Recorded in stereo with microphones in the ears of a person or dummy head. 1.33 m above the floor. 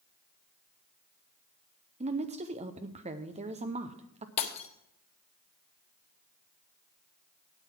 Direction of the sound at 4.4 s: 35° left (ahead or behind).